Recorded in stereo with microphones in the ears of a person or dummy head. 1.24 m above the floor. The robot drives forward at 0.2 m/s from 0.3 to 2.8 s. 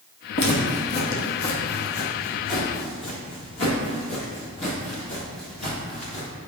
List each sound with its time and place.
0.3 s footsteps: 50° left (ahead or behind), 1.9 m